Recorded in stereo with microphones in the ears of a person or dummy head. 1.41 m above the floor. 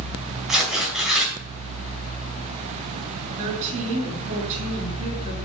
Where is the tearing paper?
5° right (ahead or behind), 4.5 m.